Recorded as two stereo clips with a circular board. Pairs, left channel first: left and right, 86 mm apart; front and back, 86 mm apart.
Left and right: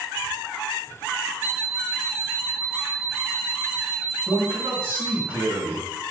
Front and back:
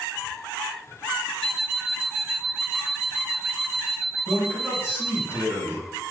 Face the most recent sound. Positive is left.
turn(degrees=-45)